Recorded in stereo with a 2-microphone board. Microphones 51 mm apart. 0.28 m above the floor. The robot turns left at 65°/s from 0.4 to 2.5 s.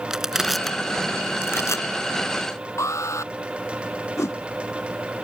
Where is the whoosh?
75° left (ahead or behind).